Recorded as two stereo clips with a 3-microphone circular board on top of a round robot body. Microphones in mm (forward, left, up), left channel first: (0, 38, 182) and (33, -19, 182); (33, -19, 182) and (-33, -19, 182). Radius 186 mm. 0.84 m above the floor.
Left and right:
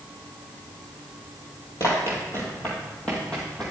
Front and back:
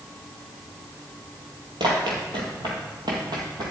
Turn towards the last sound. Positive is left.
turn(degrees=-155)